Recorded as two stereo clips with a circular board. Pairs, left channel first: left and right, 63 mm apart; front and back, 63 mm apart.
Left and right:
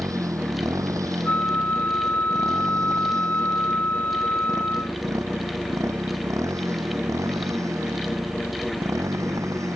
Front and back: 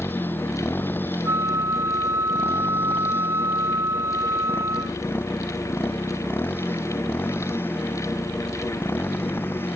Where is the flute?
150° left.